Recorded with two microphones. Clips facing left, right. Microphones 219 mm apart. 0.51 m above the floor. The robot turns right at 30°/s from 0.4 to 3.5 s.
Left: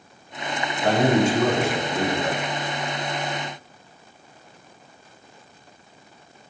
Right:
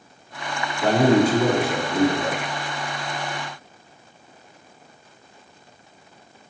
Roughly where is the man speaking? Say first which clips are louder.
Right 2 dB; right.